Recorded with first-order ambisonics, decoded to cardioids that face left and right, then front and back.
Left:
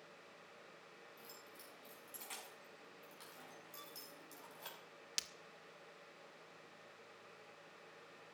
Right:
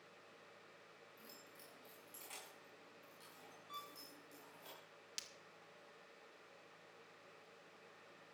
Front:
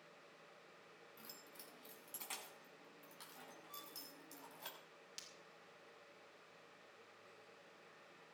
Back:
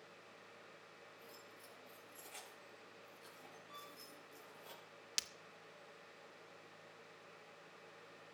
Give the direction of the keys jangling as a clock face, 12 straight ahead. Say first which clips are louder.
Left 2 dB, back 1 dB; 12 o'clock.